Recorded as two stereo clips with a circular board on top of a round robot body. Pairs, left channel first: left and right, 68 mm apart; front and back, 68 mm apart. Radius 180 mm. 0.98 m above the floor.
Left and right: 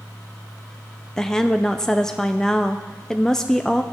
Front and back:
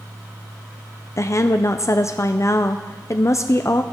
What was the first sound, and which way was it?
A woman speaking, 15° left.